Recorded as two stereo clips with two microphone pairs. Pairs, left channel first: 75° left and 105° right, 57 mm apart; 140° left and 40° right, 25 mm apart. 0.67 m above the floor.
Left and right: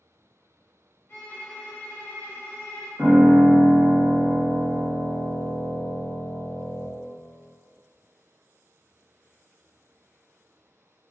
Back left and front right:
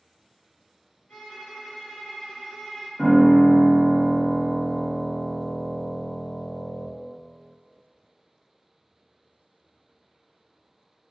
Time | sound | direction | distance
1.1 | a violin | 125° left | 1.7 m
3.0 | a piano | 125° left | 1.3 m